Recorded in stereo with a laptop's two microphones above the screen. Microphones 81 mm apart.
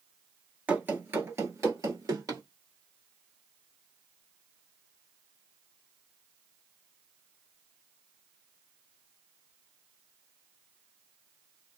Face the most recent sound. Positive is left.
turn(degrees=-50)  # may be behind; listen again after turning